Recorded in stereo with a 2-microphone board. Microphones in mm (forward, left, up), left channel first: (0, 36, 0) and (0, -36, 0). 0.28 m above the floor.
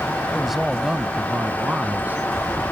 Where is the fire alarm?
No fire alarm in this recording.